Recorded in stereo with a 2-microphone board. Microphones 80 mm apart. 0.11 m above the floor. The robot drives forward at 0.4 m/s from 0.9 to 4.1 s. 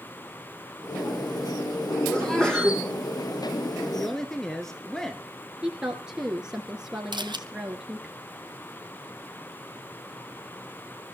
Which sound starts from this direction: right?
A camera shutter, at 7.1 s.